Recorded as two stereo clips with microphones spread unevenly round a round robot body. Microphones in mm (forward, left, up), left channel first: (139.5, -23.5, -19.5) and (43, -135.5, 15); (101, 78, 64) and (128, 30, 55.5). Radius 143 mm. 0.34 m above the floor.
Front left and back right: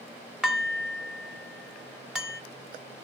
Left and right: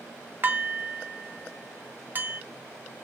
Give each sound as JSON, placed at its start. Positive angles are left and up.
{"t": 0.4, "sound": "dishes clattering", "azimuth_deg": -35, "distance_m": 1.0}